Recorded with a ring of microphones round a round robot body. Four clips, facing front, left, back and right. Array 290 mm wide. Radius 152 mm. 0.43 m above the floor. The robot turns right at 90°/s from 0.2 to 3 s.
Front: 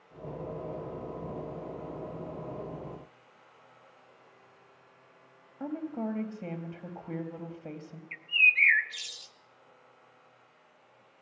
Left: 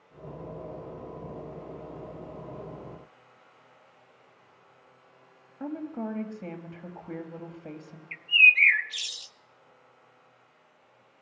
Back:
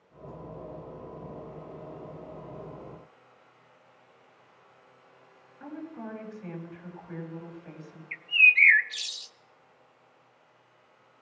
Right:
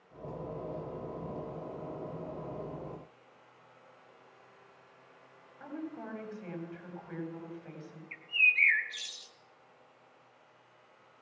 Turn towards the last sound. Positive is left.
turn(degrees=125)